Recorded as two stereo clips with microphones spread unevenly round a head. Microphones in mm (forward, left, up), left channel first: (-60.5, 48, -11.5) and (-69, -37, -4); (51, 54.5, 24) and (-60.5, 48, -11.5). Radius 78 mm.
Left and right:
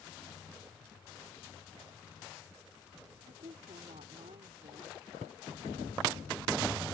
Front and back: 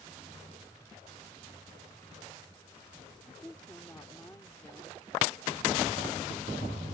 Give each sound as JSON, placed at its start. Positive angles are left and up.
{"t": 3.3, "sound": "a woman speaking", "azimuth_deg": -70}